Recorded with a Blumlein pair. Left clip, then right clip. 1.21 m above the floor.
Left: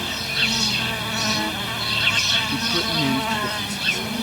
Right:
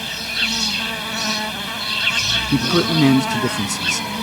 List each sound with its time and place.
0.0 s an insect: 5° right
2.5 s a man speaking: 30° right